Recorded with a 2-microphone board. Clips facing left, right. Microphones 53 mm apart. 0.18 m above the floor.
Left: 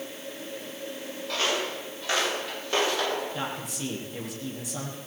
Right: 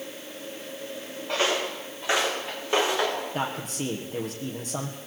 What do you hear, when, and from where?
1.3 s footsteps: 20° right (ahead or behind), 9.5 m
3.3 s a man speaking: 45° right (ahead or behind), 5.5 m